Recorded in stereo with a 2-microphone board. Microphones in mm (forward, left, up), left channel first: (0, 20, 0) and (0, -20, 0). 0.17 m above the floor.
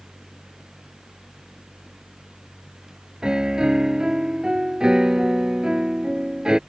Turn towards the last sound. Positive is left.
turn(degrees=-20)  # may be behind; listen again after turning